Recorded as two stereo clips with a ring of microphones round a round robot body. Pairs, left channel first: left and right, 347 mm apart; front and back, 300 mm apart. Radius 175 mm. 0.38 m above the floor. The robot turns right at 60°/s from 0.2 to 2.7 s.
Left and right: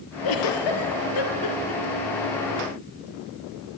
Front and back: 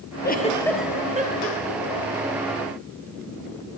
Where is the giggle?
55° left, 4.5 m; by 2.1 s 170° left, 4.5 m.